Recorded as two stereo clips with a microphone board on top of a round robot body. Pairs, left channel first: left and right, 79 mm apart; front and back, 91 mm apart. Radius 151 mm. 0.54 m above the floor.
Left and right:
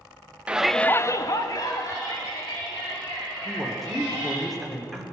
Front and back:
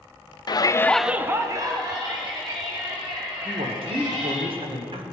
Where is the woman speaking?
Straight behind, 1.8 m.